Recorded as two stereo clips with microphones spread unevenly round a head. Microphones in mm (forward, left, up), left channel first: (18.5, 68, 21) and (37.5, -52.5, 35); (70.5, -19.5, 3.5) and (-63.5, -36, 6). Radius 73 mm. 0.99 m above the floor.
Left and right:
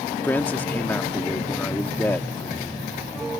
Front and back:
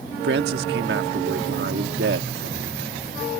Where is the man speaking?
Straight behind.